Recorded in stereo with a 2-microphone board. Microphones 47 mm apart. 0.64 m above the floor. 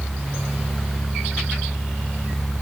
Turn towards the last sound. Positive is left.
No sound to turn to.